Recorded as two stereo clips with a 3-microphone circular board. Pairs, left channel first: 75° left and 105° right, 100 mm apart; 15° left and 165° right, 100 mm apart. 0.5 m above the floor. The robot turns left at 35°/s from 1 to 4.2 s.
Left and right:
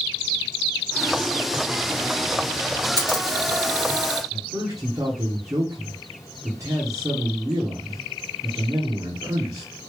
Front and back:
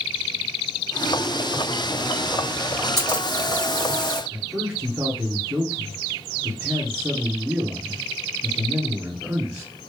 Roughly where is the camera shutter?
Behind right.